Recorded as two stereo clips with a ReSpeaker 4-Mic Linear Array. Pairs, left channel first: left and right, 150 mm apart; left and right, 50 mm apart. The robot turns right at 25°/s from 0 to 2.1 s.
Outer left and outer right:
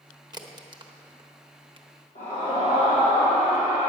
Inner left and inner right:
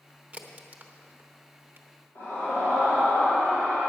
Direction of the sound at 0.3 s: 30° right (ahead or behind).